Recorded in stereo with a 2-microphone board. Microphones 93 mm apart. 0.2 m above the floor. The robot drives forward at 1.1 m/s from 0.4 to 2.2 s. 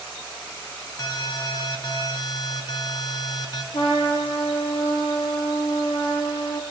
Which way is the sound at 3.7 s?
70° left (ahead or behind).